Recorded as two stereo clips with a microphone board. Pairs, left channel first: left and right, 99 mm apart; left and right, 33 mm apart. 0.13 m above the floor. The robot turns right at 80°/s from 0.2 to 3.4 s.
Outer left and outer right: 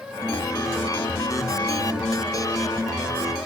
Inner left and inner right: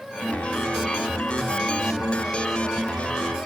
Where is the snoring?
No snoring in this recording.